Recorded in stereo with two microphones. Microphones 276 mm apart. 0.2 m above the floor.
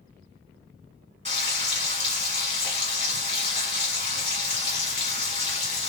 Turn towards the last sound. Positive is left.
turn(degrees=-25)  # may be behind; listen again after turning